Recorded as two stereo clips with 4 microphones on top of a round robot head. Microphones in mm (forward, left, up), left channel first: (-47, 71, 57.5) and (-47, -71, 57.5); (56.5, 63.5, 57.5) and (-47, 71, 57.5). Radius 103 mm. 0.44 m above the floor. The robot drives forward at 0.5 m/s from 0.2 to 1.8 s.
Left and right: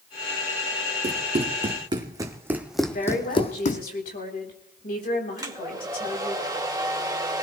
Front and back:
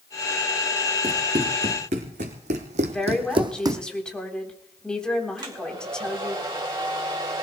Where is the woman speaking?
75° left, 4 m.